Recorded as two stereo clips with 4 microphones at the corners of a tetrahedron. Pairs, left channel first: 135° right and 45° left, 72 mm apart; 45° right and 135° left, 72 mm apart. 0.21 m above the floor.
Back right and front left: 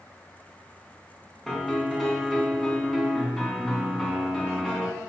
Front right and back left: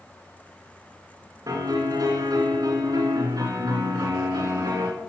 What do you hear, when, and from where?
1.5 s a piano: 140° left, 3 m